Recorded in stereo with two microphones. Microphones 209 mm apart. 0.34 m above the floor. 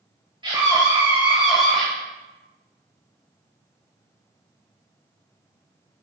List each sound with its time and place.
0.4 s a scream: 20° right (ahead or behind), 1.7 m; by 1.9 s 5° left (ahead or behind), 2.0 m